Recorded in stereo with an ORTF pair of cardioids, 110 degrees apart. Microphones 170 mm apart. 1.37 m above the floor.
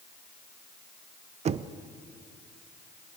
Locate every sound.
1.4 s knocking: 40° right, 0.5 m